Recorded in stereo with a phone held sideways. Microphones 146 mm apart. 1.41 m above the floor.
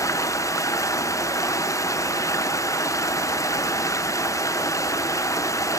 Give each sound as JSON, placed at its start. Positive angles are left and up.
{"t": 0.0, "sound": "running water", "side_deg": 20, "distance_m": 0.9}